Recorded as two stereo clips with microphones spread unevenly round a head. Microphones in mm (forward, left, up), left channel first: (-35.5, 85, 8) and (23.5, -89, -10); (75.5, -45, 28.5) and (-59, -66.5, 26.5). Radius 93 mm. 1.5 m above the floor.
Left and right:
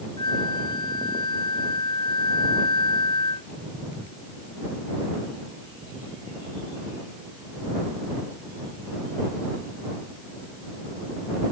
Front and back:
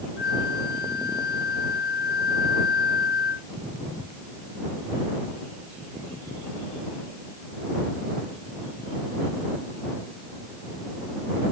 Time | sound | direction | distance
0.2 | a flute | 40° left | ?